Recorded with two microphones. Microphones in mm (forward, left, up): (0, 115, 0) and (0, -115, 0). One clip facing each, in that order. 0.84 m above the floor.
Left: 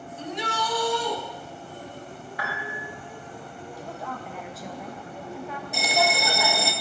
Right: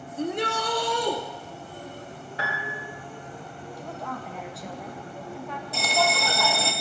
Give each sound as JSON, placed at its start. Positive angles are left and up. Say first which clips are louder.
{"t": 0.2, "sound": "a shout", "louder": "right 5 dB", "side_deg": -50, "distance_m": 1.1}
{"t": 2.4, "sound": "a piano", "louder": "right 1 dB", "side_deg": -30, "distance_m": 1.8}
{"t": 3.8, "sound": "a woman speaking", "louder": "right 1 dB", "side_deg": 0, "distance_m": 0.6}
{"t": 5.7, "sound": "a bell", "louder": "left 1 dB", "side_deg": 15, "distance_m": 0.7}